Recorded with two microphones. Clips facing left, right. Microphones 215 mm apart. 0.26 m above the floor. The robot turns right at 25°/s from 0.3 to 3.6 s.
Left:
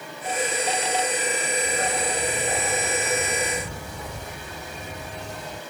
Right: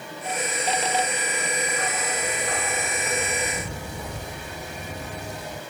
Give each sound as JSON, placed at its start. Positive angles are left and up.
{"t": 1.6, "sound": "a dog barking", "azimuth_deg": 140}